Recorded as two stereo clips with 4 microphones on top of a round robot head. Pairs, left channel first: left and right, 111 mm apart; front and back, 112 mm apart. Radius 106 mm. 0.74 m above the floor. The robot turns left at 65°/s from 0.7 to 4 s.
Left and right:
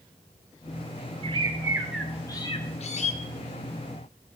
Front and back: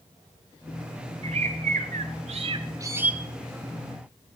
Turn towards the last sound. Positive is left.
turn(degrees=45)